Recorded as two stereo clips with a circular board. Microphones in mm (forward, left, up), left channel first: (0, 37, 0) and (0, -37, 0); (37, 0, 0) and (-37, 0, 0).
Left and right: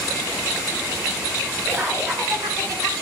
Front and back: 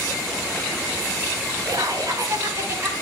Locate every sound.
1.7 s laughter: 145° right, 4 m; by 2.9 s 125° right, 4.5 m